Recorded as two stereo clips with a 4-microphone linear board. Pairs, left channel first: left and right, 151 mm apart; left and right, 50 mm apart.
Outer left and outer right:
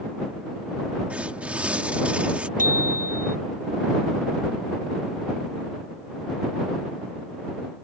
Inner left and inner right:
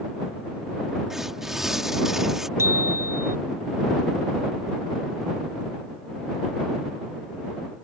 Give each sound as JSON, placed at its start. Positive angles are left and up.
{"t": 1.1, "sound": "tearing paper", "side_deg": -10}
{"t": 2.6, "sound": "a bicycle bell", "side_deg": -65}